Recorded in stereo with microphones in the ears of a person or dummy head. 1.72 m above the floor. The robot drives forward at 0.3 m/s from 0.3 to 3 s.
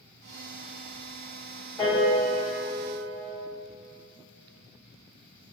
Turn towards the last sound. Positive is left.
turn(degrees=-10)  # may be behind; listen again after turning